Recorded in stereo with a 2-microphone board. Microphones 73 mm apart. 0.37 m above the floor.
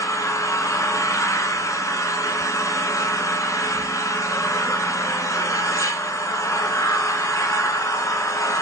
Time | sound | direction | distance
0.0 | an engine running | 45° left (ahead or behind) | 0.8 m